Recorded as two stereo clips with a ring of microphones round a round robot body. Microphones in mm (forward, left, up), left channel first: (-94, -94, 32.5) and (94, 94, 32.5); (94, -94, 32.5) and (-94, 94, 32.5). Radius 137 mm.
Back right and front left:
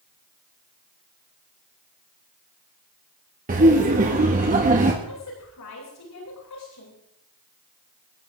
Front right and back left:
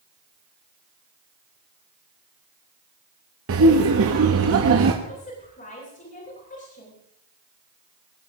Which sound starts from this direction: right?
A woman speaking, at 5.0 s.